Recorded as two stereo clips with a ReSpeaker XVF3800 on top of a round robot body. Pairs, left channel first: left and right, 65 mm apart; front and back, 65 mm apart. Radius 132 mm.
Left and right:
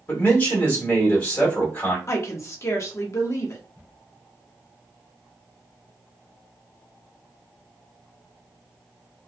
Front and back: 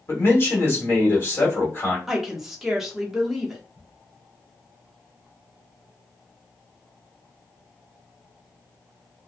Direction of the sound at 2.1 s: 100° left.